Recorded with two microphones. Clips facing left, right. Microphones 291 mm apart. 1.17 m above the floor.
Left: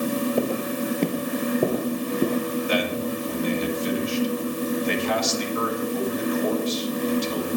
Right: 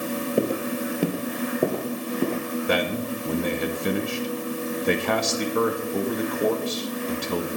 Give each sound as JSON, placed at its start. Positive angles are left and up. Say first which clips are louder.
{"t": 0.4, "sound": "footsteps", "louder": "even", "side_deg": -20, "distance_m": 1.2}
{"t": 2.7, "sound": "a man speaking", "louder": "right 3 dB", "side_deg": -60, "distance_m": 1.7}